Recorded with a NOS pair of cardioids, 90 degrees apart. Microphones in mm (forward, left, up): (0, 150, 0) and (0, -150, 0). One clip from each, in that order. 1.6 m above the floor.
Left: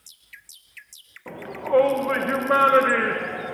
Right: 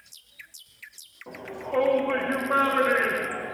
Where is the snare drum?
No snare drum in this recording.